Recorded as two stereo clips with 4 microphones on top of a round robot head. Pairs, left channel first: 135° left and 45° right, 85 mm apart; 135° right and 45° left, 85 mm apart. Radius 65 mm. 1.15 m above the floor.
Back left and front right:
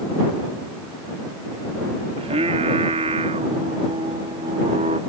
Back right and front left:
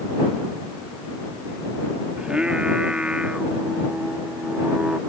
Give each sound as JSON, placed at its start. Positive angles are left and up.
{"t": 2.2, "sound": "singing", "azimuth_deg": -35}